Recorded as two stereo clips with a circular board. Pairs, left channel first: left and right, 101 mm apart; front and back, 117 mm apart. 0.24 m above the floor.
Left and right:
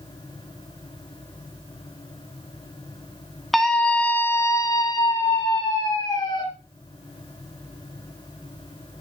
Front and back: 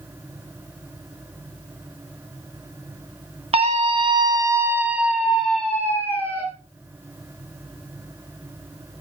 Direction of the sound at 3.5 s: Straight behind.